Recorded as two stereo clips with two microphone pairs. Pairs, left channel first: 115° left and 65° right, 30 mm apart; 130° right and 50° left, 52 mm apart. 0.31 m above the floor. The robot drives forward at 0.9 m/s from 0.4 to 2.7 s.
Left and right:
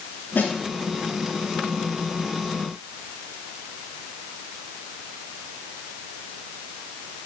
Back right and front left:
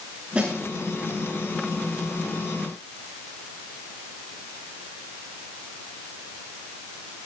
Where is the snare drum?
110° left, 8.5 m; by 0.5 s 115° left, 8.5 m.